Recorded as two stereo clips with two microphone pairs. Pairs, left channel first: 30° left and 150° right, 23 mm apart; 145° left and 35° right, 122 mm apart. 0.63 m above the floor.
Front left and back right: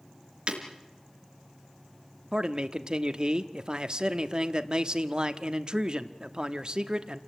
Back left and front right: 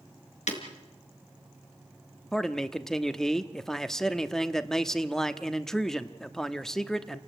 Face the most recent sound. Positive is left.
turn(degrees=-125)